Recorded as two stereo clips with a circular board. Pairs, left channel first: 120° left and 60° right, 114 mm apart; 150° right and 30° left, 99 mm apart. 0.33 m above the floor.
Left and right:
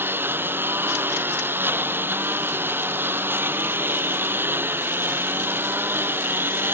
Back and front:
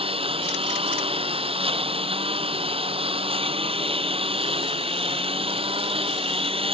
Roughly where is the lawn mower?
Ahead.